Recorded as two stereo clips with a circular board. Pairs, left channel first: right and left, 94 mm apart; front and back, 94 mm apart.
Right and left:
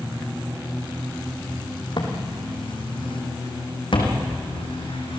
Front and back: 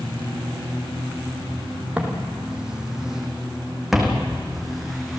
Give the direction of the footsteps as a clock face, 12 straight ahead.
3 o'clock.